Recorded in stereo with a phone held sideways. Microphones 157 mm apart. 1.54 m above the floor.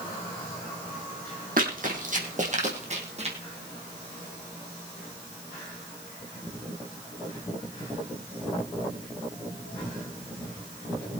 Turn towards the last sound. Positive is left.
turn(degrees=-40)  # may be behind; listen again after turning